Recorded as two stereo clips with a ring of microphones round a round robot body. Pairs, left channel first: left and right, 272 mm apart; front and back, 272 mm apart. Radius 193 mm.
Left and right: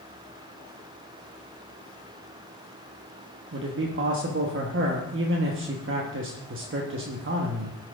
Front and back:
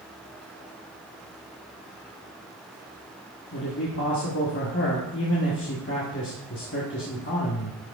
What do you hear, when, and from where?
3.5 s a man speaking: 50° right, 1.1 m